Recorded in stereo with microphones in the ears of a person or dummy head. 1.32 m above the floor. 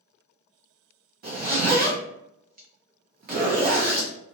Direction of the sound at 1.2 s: 50° right (ahead or behind).